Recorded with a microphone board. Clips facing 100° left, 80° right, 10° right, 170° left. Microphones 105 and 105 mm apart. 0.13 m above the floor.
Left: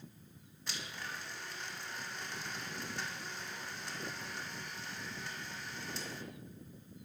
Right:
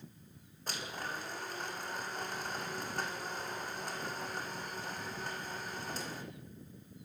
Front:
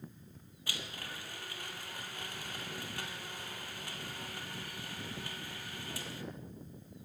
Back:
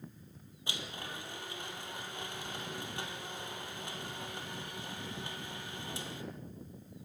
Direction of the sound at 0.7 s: 120° right.